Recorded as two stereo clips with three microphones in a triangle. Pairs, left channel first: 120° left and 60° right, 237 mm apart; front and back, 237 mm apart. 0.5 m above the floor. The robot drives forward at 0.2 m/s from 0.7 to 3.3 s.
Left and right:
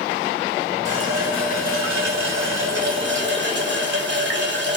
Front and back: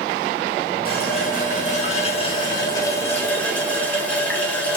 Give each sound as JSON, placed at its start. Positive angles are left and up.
{"t": 0.8, "sound": "a running tap", "azimuth_deg": -40, "distance_m": 0.8}